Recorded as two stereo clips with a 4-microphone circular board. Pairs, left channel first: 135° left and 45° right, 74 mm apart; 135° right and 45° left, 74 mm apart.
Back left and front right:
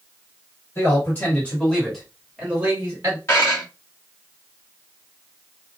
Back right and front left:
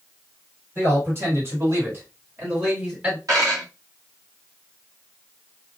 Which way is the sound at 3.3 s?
80° left.